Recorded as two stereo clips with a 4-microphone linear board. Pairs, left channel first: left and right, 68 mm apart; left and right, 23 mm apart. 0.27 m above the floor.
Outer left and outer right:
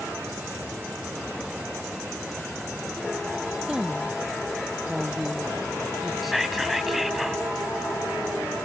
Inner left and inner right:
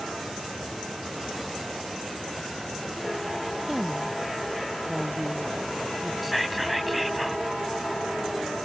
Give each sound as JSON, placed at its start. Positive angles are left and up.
{"t": 3.7, "sound": "a woman speaking", "side_deg": -10}
{"t": 6.2, "sound": "whispering", "side_deg": -5}